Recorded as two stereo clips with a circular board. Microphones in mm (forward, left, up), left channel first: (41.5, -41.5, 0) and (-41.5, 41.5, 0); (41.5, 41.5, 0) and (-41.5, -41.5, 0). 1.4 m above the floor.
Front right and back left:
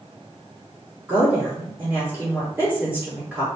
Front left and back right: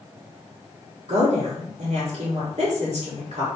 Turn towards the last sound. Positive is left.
turn(degrees=-150)